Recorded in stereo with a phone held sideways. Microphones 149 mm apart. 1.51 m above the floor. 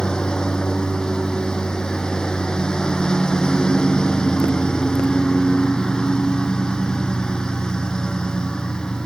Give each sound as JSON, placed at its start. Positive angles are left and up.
{"t": 0.0, "sound": "a lawn mower", "side_deg": 5}